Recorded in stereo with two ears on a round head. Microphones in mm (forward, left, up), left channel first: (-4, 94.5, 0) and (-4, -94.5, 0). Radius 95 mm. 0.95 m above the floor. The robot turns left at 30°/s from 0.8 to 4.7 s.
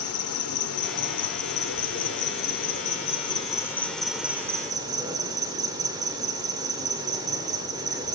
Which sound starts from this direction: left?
An insect, at 0.0 s.